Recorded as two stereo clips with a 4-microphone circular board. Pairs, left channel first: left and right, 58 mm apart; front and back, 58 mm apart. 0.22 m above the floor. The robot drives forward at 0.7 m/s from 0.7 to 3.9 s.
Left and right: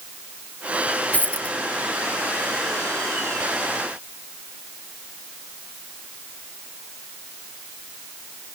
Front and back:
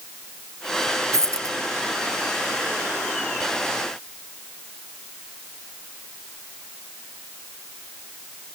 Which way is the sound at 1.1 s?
155° left.